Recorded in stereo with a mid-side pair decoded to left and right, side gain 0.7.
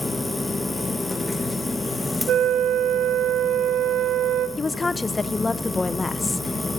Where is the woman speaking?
15° left, 0.9 m.